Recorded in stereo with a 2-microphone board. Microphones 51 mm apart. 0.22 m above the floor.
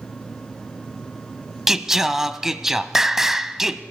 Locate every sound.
1.7 s singing: 10° right (ahead or behind), 0.6 m